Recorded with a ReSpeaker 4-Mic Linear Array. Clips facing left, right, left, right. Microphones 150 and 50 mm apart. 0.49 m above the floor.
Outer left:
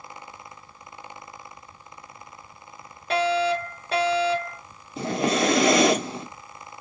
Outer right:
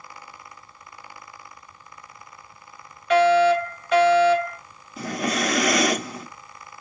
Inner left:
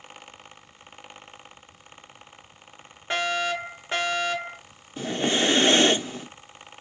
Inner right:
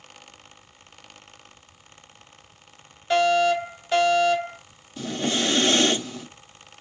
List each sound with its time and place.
3.1 s a fire alarm: 35° left (ahead or behind), 3 m
5.0 s breathing: 25° left (ahead or behind), 0.8 m